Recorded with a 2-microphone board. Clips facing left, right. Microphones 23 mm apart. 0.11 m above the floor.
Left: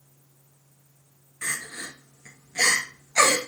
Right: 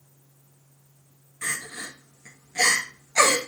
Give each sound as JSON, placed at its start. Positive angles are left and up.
{"t": 1.4, "sound": "crying", "side_deg": 10, "distance_m": 1.3}